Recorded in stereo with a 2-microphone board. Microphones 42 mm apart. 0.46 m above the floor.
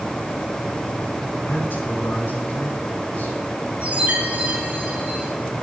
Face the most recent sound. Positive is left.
turn(degrees=-30)  # may be behind; listen again after turning